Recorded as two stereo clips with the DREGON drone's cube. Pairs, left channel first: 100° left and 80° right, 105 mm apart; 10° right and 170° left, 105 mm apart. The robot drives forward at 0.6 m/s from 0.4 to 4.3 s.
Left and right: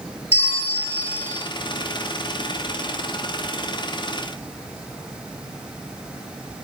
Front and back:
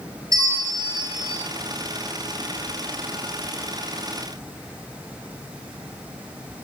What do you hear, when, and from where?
0.3 s a bell: 110° left, 5 m; by 1.4 s 120° left, 5.5 m